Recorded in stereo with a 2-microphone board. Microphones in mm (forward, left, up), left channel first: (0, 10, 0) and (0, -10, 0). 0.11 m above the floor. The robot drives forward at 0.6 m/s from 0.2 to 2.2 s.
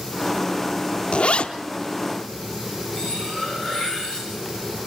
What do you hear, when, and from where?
1.1 s a zipper: 65° left (ahead or behind), 0.9 m; by 1.5 s 60° left (ahead or behind), 0.9 m
2.9 s cutlery clinking: 40° right (ahead or behind), 8 m